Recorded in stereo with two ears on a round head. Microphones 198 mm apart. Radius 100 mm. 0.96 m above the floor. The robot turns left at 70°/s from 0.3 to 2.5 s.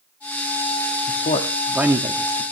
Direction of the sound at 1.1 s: 45° left (ahead or behind).